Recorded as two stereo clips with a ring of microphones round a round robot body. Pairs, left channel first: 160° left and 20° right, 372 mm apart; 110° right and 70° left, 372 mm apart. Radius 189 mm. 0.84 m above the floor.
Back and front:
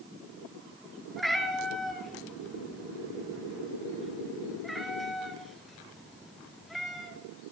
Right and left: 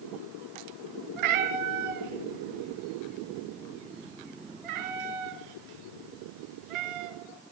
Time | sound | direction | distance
1.2 | a cat meowing | 70° left | 3.5 m